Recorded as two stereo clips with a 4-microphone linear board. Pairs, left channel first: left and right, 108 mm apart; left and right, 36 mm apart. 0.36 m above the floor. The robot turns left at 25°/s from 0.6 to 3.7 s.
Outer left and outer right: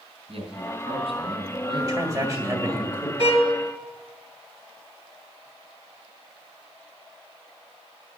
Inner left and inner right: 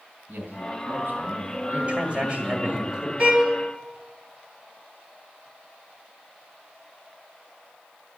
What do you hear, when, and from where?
0.3 s a man speaking: 80° right, 3 m; by 2.8 s 135° right, 3 m
1.8 s a man speaking: 125° right, 1.7 m; by 3.1 s 155° right, 1.7 m
3.2 s a violin: 50° right (ahead or behind), 3 m; by 3.5 s 40° right (ahead or behind), 3 m